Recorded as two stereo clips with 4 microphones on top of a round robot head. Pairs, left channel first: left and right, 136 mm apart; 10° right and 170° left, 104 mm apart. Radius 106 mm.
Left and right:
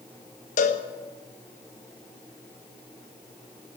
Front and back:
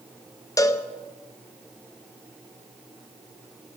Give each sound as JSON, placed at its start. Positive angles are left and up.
{"t": 0.6, "sound": "a cowbell", "azimuth_deg": 50, "distance_m": 0.9}